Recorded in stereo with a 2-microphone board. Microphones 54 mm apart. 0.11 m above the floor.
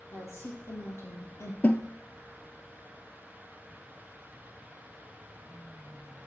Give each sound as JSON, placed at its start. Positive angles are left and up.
{"t": 0.1, "sound": "a woman speaking", "side_deg": 50, "distance_m": 3.0}
{"t": 1.6, "sound": "a snare drum", "side_deg": 35, "distance_m": 0.5}